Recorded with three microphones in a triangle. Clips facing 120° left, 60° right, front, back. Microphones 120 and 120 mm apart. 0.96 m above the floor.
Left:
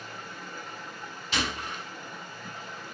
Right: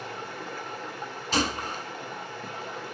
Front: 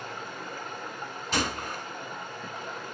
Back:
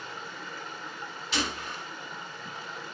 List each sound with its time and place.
0.0 s running water: 40° right, 2 m
1.3 s a gunshot: 25° right, 1.2 m